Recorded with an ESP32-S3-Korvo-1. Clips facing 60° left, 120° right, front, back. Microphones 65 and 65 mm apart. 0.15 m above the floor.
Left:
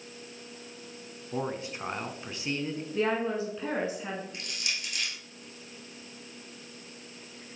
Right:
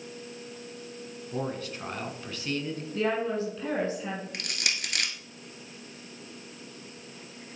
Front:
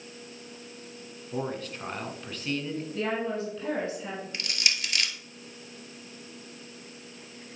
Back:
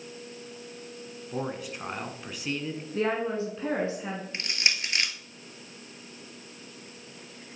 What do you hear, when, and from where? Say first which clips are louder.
1.3 s a man speaking: even, front 1 dB; 110° left, 1.2 m
2.9 s a woman speaking: even, back 3 dB; 130° left, 1.4 m
4.3 s crushing: right 3 dB, back 2 dB; 120° right, 1.0 m